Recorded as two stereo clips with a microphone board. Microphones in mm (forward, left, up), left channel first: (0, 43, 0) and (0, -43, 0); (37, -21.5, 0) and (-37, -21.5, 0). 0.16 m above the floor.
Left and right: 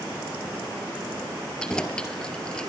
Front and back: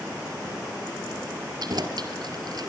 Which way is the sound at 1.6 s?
170° left.